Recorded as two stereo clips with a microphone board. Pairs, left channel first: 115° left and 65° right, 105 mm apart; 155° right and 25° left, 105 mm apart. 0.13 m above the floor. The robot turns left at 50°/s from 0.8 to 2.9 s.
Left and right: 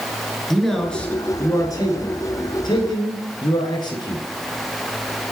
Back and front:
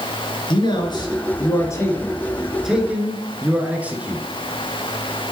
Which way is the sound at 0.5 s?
160° right.